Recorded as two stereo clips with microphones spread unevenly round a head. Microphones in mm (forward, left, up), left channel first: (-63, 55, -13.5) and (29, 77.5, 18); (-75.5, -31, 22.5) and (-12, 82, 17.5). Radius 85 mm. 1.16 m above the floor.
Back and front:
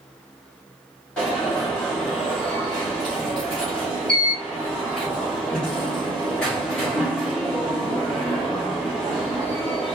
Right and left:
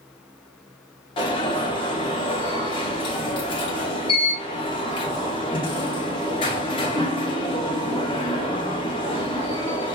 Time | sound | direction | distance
1.2 | an alarm | 125° right | 1.4 m